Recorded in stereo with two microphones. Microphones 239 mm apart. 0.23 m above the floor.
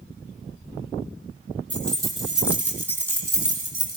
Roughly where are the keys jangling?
Centre.